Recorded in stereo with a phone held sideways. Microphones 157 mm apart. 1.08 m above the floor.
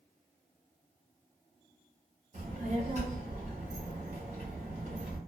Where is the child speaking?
50° right (ahead or behind), 0.7 m.